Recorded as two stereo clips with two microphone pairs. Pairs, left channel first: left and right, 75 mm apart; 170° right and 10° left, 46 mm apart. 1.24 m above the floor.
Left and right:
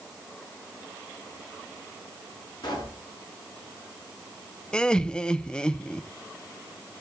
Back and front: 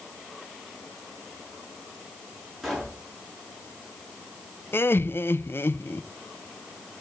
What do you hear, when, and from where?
2.6 s a pop: 100° left, 4.5 m
4.7 s laughter: 170° left, 0.6 m